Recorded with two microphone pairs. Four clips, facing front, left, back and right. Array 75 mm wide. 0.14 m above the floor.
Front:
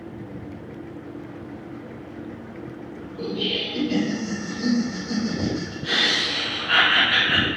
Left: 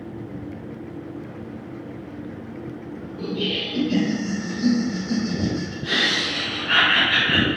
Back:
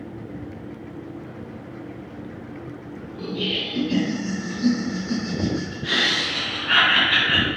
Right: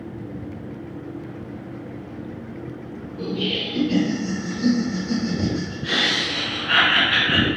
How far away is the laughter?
About 1.8 m.